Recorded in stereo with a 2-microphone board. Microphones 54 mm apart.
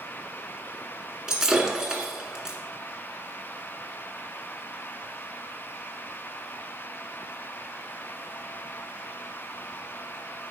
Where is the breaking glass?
15° right (ahead or behind), 1.7 m.